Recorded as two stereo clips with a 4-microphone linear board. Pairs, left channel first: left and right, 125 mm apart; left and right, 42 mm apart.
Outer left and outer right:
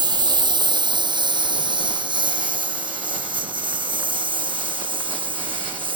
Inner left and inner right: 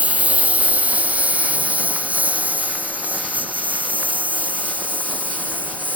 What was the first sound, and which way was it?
A lawn mower, 35° right (ahead or behind).